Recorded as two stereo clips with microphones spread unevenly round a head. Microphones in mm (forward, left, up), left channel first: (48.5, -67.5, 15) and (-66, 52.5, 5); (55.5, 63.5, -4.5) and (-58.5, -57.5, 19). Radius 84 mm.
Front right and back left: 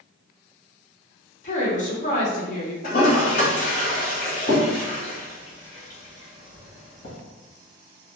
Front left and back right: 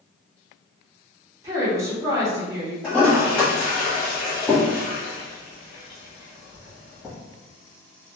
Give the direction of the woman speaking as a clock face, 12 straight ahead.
2 o'clock.